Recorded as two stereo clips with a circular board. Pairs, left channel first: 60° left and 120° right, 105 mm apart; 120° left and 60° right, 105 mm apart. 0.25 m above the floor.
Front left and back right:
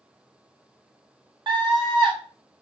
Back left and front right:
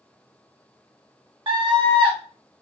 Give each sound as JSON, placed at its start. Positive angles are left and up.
{"t": 1.5, "sound": "a scream", "azimuth_deg": -85, "distance_m": 2.5}